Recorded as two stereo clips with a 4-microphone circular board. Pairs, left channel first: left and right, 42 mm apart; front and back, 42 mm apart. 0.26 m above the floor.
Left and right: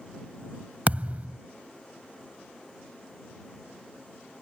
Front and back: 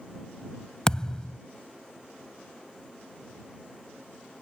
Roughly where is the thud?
Ahead right.